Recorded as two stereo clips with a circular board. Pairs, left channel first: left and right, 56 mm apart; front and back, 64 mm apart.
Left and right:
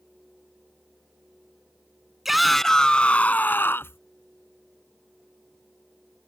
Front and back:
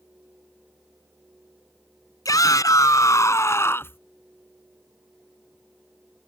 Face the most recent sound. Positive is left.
turn(degrees=55)